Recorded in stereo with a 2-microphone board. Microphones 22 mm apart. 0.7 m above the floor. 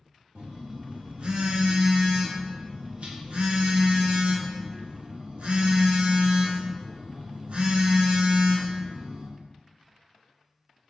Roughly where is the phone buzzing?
Right.